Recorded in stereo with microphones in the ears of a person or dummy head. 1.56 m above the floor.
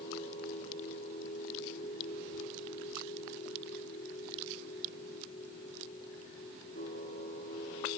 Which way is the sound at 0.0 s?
55° left (ahead or behind).